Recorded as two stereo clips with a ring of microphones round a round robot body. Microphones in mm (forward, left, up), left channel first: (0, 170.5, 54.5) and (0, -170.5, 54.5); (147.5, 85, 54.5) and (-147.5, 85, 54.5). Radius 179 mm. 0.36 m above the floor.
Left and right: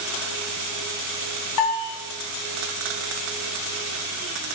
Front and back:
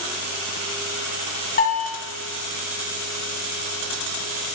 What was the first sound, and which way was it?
A bell, 60° left.